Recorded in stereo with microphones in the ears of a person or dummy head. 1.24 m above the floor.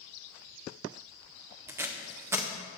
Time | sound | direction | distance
1.7 | tape being pulled | 15° right (ahead or behind) | 0.6 m